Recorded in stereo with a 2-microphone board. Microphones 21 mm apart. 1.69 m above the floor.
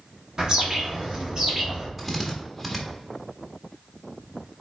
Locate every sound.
0.4 s a bird: 30° right (ahead or behind), 1.9 m
2.0 s a drill: 5° left (ahead or behind), 1.6 m